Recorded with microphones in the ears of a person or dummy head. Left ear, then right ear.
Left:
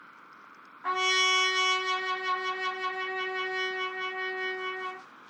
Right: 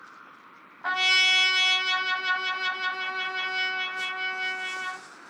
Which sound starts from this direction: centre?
A trumpet, at 0.8 s.